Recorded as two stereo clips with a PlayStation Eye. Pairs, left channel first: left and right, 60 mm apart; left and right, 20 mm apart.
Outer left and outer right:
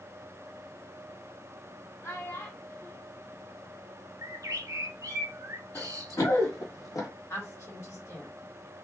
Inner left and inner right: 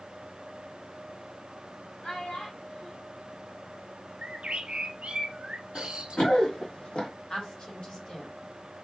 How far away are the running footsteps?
About 2 m.